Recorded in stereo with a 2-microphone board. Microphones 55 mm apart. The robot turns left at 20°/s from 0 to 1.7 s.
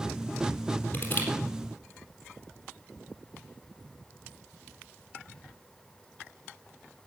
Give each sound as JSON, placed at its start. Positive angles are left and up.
{"t": 0.9, "sound": "crushing", "side_deg": 30, "distance_m": 4.0}